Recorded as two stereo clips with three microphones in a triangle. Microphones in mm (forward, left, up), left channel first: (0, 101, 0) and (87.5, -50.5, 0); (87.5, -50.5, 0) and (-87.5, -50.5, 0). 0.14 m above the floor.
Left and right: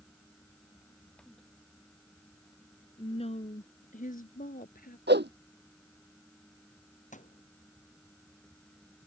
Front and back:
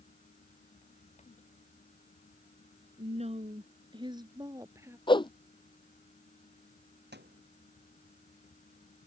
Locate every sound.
3.0 s a woman speaking: 160° left; by 5.0 s 105° left
5.1 s a whoosh: 60° right
7.1 s a thud: 165° left